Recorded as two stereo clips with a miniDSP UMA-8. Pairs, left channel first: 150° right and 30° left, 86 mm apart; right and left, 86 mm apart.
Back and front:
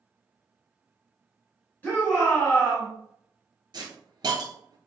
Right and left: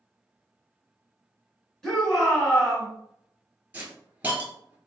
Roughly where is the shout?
Behind.